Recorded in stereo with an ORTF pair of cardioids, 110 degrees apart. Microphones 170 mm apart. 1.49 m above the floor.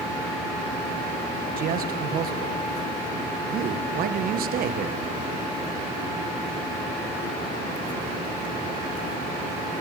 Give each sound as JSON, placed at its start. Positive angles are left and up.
{"t": 1.6, "sound": "a man speaking", "azimuth_deg": -60, "distance_m": 1.4}